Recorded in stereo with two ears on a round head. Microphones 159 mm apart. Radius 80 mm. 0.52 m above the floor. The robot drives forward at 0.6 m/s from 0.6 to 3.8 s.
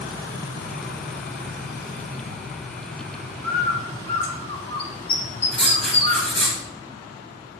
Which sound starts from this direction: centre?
Writing, at 5.5 s.